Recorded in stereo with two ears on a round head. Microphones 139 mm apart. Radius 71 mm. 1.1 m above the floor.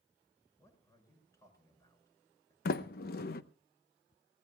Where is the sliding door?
65° left (ahead or behind), 0.9 m.